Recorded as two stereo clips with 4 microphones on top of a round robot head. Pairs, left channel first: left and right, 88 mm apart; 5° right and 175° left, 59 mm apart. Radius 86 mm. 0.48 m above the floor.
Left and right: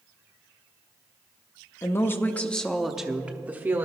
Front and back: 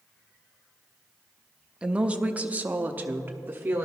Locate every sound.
1.8 s a woman speaking: 115° left, 0.9 m; by 3.9 s 140° right, 1.1 m